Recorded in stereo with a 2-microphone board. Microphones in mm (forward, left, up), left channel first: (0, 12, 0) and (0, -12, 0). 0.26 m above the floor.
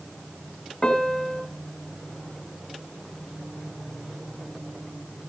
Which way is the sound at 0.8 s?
30° left (ahead or behind).